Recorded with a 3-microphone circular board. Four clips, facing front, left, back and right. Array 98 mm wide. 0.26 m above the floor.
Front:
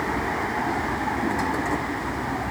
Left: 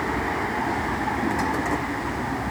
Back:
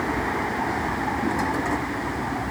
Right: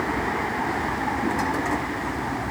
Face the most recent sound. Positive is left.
No sound to turn to.